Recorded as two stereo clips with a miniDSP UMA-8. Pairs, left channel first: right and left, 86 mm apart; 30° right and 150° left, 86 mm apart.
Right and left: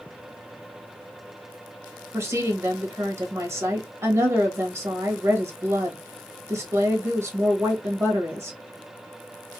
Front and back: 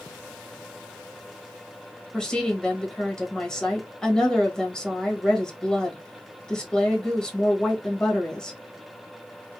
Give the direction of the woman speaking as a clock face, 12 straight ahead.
10 o'clock.